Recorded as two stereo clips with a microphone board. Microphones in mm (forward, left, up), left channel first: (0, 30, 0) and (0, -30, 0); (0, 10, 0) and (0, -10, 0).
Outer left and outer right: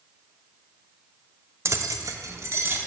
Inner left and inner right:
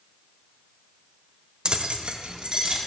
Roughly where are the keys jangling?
Right.